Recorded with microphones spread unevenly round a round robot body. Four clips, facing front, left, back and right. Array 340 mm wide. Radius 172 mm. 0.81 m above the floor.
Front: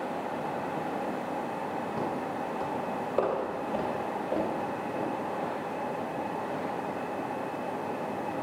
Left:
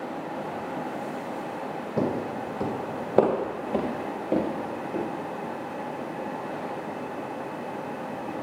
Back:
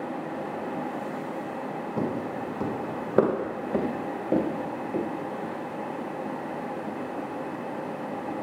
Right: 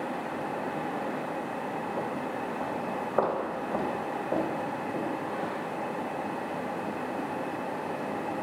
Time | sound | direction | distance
2.0 | footsteps | 105° left | 1.7 m